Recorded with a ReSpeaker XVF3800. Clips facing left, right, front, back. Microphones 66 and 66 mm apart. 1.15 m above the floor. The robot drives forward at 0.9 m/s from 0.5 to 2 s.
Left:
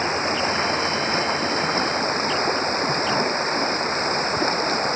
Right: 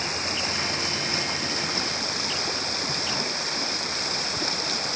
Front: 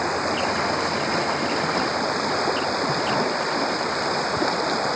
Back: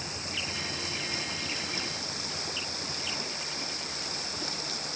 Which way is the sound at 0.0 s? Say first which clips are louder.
Left 8 dB, front 16 dB; 35° left.